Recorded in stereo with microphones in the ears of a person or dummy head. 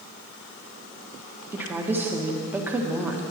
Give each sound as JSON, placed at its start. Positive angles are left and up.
{"t": 1.5, "sound": "a woman speaking", "side_deg": -10, "distance_m": 1.2}